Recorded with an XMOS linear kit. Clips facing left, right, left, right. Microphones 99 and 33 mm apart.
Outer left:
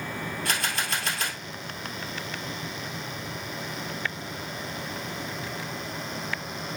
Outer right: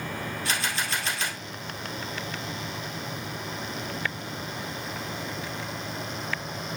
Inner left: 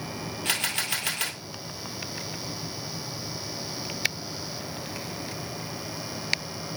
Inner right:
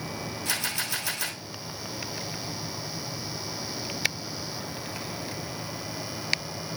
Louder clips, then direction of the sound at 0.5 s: Even, inner left 3 dB; 45° left (ahead or behind).